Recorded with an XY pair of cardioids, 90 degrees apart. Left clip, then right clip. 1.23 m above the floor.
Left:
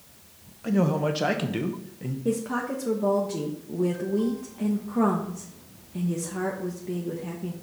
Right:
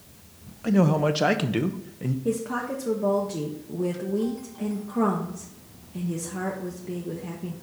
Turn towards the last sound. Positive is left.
turn(degrees=5)